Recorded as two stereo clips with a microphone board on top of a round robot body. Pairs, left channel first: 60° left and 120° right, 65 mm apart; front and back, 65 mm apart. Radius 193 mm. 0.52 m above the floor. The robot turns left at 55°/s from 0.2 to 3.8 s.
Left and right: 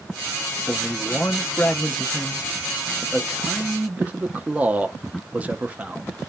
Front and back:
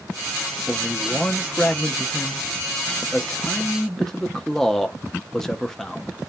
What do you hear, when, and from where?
0.7 s a man speaking: 95° left, 0.6 m; by 6.2 s 75° right, 0.6 m